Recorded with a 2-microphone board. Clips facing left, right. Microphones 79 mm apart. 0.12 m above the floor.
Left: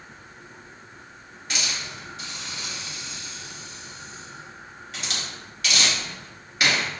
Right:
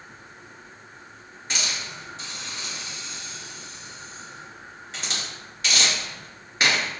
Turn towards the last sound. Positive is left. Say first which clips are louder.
# even
turn(degrees=-30)  # may be behind; listen again after turning